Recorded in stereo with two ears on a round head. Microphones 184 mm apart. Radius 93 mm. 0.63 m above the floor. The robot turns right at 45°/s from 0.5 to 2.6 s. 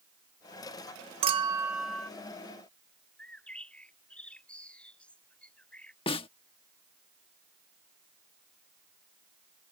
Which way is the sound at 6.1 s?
25° left (ahead or behind).